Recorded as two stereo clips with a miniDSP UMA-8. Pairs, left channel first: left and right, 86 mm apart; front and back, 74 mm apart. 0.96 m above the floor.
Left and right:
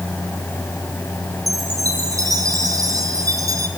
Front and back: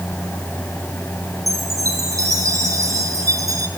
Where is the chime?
140° right, 3 m.